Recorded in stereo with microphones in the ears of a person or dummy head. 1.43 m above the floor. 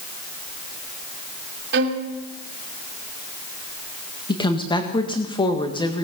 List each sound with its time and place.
1.7 s a violin: 60° right (ahead or behind), 2 m
4.3 s a woman speaking: 25° left (ahead or behind), 1.6 m